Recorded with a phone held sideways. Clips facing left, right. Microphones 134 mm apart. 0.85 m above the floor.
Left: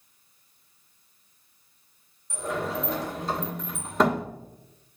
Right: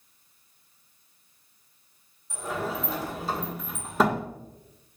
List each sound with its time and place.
2.3 s a sliding door: 5° right (ahead or behind), 1.4 m